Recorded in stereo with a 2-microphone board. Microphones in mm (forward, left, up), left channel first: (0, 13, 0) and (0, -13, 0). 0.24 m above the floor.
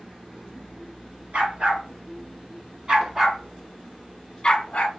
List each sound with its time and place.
1.3 s a dog barking: 60° right (ahead or behind), 1.5 m; by 4.9 s 40° left (ahead or behind), 0.9 m